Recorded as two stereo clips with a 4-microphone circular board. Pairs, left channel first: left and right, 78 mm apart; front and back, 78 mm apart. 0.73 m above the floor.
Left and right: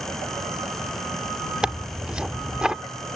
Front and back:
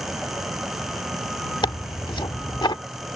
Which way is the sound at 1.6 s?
10° right.